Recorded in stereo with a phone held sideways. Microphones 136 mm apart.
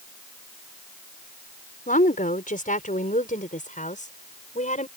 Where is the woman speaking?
80° left; by 4.9 s 65° left (ahead or behind).